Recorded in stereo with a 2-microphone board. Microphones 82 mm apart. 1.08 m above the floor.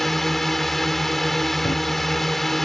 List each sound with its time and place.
0.0 s a drone: centre (ahead or behind)
1.6 s running footsteps: 70° left (ahead or behind)